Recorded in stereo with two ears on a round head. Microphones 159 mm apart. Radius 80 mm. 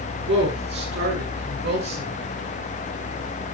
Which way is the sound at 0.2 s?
70° right (ahead or behind).